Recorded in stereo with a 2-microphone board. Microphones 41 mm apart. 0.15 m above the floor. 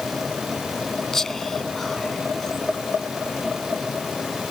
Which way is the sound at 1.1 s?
10° left (ahead or behind).